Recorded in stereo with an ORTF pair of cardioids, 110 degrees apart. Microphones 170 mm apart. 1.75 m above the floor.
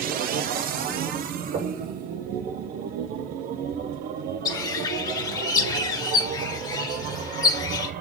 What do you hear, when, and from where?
0.0 s a machine running: 65° right, 0.8 m
1.5 s knocking: 70° right, 2.5 m
4.5 s a bird: 25° left, 1.5 m